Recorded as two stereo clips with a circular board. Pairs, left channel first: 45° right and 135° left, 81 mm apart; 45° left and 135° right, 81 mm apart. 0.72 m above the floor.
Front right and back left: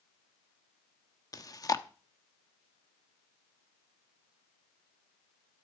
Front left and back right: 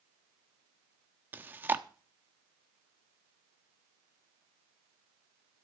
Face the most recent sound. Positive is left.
turn(degrees=-75)